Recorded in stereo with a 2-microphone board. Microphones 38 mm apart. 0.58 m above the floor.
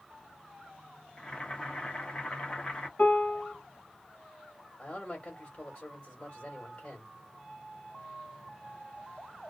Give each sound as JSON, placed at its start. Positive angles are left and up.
{"t": 1.2, "sound": "boiling", "side_deg": 30, "distance_m": 0.8}
{"t": 3.0, "sound": "a piano", "side_deg": 50, "distance_m": 0.8}
{"t": 4.8, "sound": "a man speaking", "side_deg": 35, "distance_m": 1.5}